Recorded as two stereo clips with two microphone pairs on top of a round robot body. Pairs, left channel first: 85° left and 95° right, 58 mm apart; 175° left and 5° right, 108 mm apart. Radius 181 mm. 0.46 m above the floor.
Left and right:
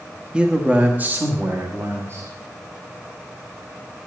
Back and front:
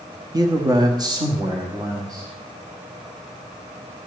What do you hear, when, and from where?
0.3 s a man speaking: 35° right, 1.2 m; by 2.3 s 60° right, 2.0 m